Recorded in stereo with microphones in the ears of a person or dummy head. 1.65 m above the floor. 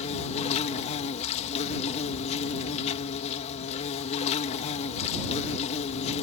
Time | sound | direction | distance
0.0 | an insect | 40° left (ahead or behind) | ?